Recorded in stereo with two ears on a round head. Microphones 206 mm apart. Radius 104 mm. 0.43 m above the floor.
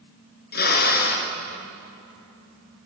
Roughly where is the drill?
Left.